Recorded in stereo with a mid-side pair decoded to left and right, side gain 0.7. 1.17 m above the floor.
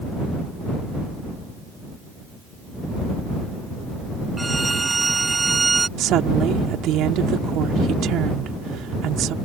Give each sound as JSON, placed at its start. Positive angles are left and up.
{"t": 4.4, "sound": "a violin", "azimuth_deg": -15}
{"t": 6.0, "sound": "a woman speaking", "azimuth_deg": -55}